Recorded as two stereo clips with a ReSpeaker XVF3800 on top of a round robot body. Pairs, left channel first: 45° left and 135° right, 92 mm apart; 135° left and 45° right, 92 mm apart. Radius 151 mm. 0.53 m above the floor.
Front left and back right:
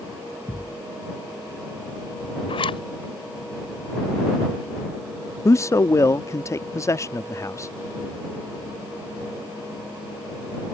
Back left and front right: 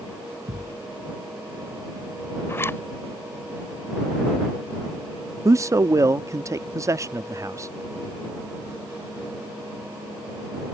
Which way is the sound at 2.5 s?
70° left.